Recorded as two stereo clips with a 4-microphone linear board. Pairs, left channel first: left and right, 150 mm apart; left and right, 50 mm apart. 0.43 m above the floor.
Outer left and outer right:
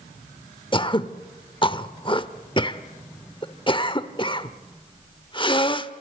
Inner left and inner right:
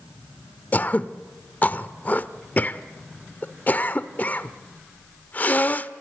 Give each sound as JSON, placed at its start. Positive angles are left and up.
{"t": 0.7, "sound": "throat clearing", "side_deg": 35, "distance_m": 0.9}